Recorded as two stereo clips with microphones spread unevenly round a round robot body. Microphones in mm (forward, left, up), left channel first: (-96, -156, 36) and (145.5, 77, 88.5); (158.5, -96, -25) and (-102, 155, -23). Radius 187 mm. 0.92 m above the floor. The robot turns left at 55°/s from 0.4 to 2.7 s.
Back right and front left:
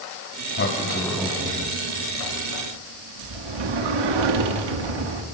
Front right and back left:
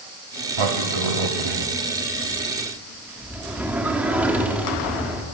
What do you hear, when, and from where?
0.6 s a sliding door: 165° left, 1.8 m; by 5.2 s 50° left, 1.8 m